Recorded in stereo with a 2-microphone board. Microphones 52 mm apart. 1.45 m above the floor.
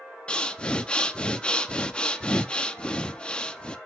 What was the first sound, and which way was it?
Breathing, 20° left (ahead or behind).